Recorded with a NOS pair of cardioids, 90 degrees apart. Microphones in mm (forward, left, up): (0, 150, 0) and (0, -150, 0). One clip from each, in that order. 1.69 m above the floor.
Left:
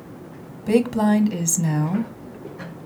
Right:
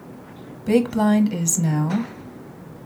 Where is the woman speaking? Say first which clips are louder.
Even; 5° right, 0.7 m.